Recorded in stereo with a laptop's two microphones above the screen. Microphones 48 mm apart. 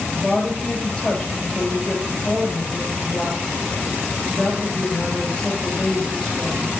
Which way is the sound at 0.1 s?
20° left (ahead or behind).